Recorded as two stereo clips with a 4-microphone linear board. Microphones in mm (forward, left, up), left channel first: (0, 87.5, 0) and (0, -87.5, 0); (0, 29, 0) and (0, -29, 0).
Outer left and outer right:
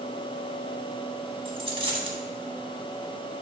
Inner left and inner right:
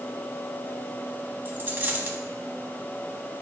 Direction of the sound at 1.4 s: 35° right (ahead or behind).